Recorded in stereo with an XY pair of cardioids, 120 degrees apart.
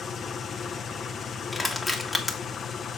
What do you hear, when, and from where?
0.0 s an engine running: 40° left, 0.8 m
1.5 s crushing: 10° left, 1.6 m